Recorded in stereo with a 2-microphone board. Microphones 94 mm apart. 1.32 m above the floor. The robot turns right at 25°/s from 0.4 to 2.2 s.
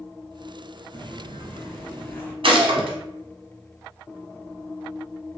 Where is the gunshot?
65° right (ahead or behind), 0.8 m.